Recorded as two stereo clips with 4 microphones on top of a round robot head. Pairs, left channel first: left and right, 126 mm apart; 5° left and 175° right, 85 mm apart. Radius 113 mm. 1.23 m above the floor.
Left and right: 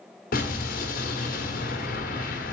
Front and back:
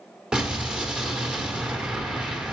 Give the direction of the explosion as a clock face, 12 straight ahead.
8 o'clock.